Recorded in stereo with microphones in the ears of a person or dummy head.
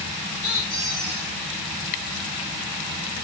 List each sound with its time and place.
0.4 s a squeak: centre (ahead or behind), 1.7 m